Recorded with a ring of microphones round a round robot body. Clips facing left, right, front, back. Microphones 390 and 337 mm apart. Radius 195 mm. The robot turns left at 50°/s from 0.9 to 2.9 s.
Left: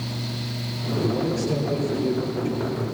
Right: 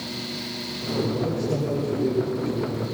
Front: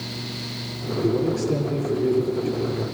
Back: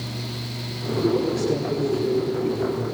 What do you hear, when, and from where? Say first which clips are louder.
1.0 s a man speaking: left 4 dB, even; 90° left, 7.5 m; by 2.8 s straight ahead, 7.5 m